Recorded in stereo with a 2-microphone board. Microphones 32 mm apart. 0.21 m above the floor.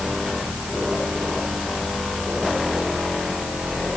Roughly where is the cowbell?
I don't hear a cowbell.